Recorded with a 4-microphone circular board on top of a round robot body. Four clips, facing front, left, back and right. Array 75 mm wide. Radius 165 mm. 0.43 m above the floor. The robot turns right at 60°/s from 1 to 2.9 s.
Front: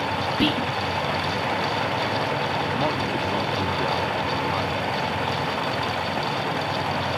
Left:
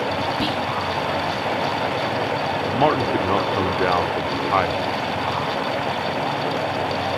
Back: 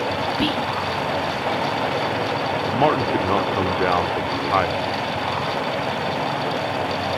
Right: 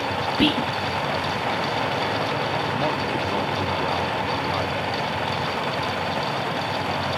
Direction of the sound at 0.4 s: 85° right.